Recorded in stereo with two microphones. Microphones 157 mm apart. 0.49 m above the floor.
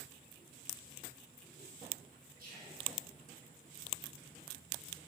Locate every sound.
2.4 s whispering: 70° right (ahead or behind), 2.5 m